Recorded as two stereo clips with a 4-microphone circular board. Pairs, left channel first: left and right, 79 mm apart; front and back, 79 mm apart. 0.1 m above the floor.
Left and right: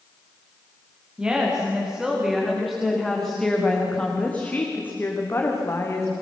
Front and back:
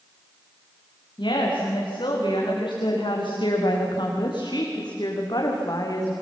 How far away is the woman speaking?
About 8.5 m.